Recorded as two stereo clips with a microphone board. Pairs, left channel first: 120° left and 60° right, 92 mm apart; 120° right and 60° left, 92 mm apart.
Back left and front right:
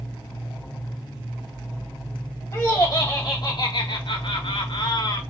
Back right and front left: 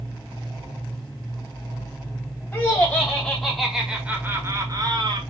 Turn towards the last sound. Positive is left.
turn(degrees=85)